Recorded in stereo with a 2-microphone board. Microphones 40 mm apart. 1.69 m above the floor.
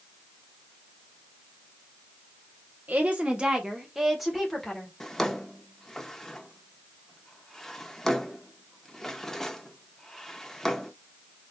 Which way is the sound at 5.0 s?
10° left (ahead or behind).